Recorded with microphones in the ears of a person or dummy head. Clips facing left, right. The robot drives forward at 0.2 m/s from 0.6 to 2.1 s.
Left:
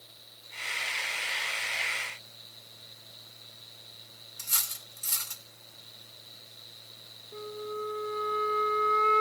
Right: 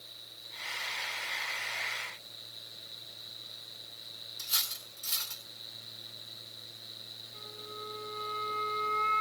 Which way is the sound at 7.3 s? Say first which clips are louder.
Left 12 dB; 55° left (ahead or behind).